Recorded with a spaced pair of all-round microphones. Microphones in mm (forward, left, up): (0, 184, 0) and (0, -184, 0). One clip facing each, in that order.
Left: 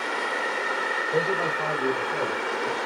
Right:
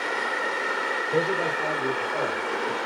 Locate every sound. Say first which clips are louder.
1.1 s a man speaking: right 1 dB; 15° right (ahead or behind), 1.1 m; by 2.8 s 45° left (ahead or behind), 2 m